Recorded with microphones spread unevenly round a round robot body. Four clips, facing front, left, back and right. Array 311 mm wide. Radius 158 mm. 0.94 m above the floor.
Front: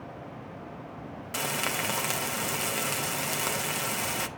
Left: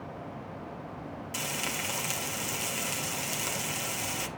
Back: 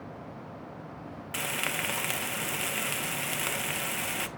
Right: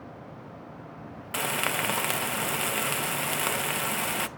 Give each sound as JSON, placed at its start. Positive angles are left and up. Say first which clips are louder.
{"t": 1.3, "sound": "frying", "louder": "right 9 dB, front 3 dB", "azimuth_deg": -65, "distance_m": 0.6}